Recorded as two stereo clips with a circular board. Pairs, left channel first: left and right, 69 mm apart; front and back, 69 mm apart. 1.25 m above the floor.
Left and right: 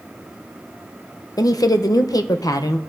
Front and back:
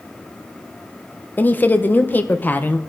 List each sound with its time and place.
1.4 s a woman speaking: 65° left, 0.7 m